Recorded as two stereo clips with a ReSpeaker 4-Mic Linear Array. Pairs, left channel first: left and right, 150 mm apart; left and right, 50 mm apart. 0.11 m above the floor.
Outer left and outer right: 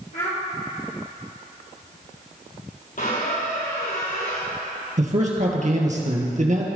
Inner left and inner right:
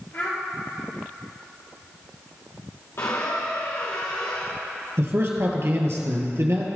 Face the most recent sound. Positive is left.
turn(degrees=-55)  # may be behind; listen again after turning